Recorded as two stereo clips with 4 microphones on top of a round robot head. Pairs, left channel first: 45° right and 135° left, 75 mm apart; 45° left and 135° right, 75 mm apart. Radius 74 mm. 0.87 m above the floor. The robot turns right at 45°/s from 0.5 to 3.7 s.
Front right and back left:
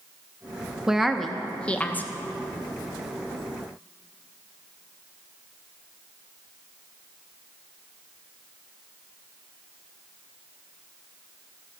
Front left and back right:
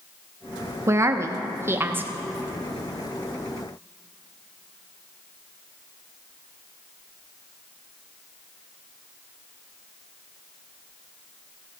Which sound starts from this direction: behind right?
A woman speaking, at 0.9 s.